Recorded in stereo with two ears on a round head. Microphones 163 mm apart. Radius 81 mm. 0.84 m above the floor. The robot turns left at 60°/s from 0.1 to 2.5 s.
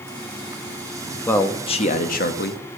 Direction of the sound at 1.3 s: 170° left.